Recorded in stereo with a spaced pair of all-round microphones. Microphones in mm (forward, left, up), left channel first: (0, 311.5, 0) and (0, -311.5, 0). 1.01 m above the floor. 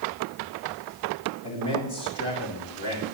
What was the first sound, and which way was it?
A man speaking, 45° left (ahead or behind).